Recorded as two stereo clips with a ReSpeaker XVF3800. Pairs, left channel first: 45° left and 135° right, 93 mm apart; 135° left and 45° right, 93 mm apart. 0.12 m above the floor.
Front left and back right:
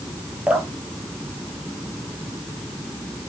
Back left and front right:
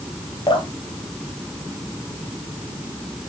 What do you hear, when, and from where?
0.5 s dripping: 150° left, 1.9 m